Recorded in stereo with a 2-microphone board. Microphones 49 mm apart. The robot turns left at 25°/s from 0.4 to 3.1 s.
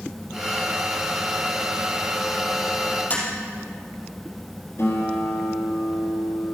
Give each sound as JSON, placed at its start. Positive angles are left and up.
{"t": 3.1, "sound": "tapping", "side_deg": 35, "distance_m": 5.0}
{"t": 4.8, "sound": "a guitar", "side_deg": 60, "distance_m": 3.0}